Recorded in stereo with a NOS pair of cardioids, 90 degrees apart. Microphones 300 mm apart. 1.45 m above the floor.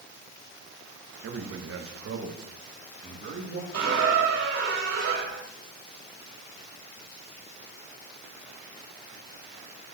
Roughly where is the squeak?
Ahead right.